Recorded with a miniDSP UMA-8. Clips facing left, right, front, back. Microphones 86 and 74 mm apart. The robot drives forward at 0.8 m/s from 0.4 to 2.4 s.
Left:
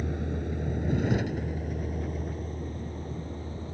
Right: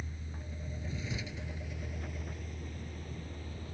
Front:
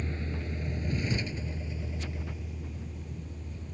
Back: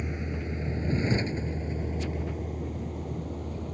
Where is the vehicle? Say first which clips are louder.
Left 14 dB, back 3 dB; 105° left; by 3.7 s 150° left.